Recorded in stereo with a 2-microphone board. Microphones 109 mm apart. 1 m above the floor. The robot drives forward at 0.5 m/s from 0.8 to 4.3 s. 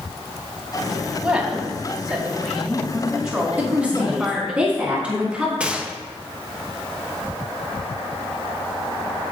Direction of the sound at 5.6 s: 10° right (ahead or behind).